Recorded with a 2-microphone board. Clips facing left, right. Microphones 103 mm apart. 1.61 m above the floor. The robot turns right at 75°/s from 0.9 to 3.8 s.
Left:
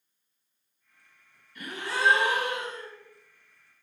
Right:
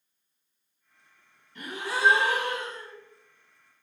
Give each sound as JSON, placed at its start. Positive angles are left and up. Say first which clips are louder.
{"t": 1.6, "sound": "a gasp", "louder": "right 1 dB", "azimuth_deg": -45, "distance_m": 1.6}